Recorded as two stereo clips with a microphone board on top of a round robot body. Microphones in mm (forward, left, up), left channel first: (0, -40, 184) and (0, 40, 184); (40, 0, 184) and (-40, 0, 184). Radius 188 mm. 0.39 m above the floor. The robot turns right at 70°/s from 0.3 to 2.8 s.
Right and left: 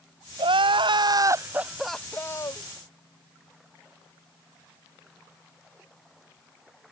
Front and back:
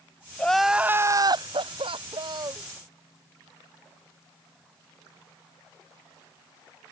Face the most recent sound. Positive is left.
turn(degrees=-115)